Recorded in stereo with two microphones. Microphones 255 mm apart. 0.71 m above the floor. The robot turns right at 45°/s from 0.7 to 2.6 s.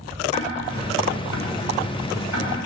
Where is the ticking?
25° left (ahead or behind), 3.5 m; by 2.5 s 70° left (ahead or behind), 3.5 m.